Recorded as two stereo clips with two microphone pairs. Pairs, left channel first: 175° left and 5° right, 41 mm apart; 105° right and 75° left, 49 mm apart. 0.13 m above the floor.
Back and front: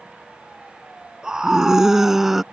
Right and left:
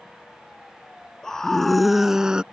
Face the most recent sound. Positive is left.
turn(degrees=60)